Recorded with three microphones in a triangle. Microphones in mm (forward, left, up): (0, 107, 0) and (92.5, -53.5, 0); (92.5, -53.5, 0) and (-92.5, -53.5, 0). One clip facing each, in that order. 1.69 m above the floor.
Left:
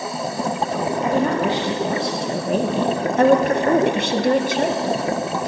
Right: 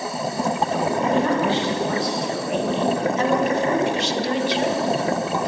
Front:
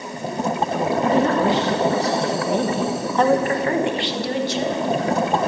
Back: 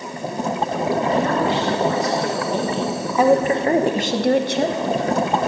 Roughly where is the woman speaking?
Ahead left.